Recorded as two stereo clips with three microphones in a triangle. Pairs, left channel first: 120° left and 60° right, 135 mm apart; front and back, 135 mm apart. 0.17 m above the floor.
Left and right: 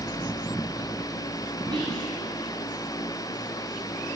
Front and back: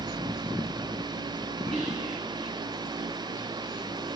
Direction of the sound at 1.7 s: 85° right.